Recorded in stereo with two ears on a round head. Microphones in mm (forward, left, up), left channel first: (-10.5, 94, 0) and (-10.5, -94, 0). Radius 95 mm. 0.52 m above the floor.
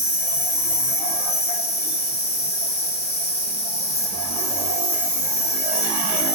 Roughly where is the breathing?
I don't hear breathing.